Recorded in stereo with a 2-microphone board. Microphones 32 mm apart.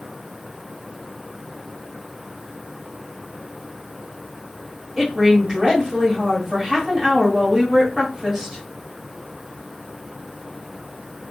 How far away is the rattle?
No rattle in this recording.